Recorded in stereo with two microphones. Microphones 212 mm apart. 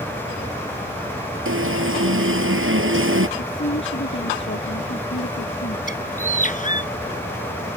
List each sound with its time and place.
1.4 s an alarm: 75° right (ahead or behind)
3.4 s a woman speaking: 65° left (ahead or behind)
5.9 s a bird: 40° left (ahead or behind)